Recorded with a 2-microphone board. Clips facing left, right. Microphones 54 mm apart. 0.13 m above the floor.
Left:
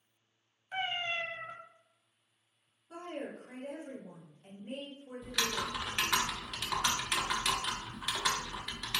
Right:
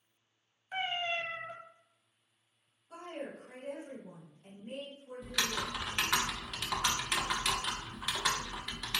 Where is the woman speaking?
35° left (ahead or behind), 1.6 m.